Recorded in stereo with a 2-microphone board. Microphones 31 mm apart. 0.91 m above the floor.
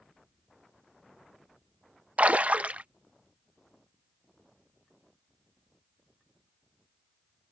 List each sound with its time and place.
2.2 s a splash: 55° right (ahead or behind)